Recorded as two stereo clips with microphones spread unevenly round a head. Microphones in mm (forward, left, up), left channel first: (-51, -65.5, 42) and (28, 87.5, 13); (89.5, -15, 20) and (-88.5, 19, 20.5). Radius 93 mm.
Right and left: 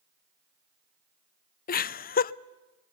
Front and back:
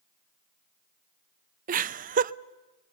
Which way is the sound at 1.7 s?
155° right.